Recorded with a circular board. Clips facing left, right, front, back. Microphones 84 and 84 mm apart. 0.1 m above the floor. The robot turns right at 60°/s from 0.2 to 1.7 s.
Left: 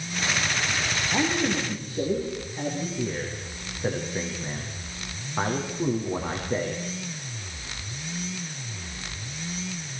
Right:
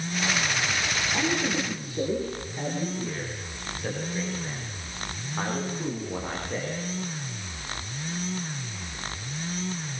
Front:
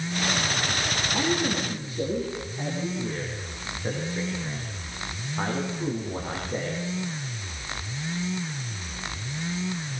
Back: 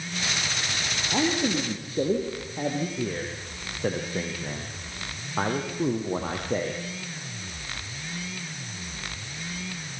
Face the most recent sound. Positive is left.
turn(degrees=160)